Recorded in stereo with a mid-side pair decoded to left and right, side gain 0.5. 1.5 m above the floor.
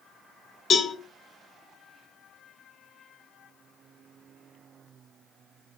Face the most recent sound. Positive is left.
turn(degrees=55)